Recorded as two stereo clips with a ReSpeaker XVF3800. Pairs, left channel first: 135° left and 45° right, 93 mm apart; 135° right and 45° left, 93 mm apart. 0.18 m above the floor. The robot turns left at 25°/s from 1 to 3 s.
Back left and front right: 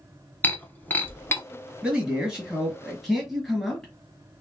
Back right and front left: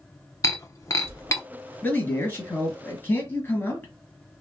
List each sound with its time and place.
0.4 s breaking glass: 165° right, 0.7 m; by 1.4 s 175° right, 0.7 m
1.8 s a man speaking: 105° right, 1.6 m; by 3.9 s 135° right, 1.6 m